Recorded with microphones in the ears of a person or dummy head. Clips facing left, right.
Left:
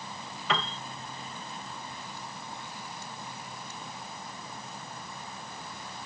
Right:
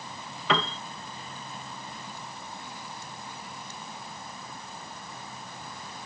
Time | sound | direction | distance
0.5 | a piano | 70° right (ahead or behind) | ?